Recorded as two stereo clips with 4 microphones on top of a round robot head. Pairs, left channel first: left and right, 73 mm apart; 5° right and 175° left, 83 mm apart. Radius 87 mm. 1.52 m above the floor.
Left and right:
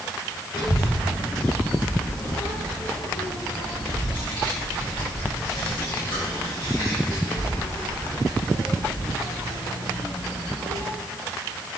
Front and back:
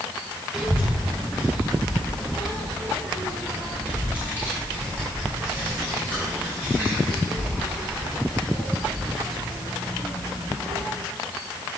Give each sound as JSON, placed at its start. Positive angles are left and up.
{"t": 0.5, "sound": "a child speaking", "azimuth_deg": 95, "distance_m": 0.7}